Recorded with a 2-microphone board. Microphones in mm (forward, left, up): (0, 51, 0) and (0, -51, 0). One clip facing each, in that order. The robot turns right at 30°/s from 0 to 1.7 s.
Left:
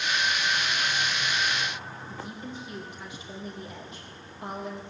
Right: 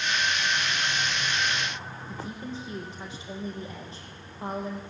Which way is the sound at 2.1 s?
35° right (ahead or behind).